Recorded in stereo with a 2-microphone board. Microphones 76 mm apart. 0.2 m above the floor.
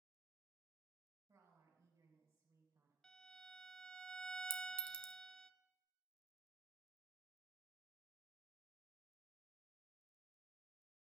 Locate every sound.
1.3 s a woman speaking: 60° right (ahead or behind), 3.5 m
3.0 s a violin: 10° left (ahead or behind), 0.6 m
4.5 s a clink: 30° right (ahead or behind), 0.7 m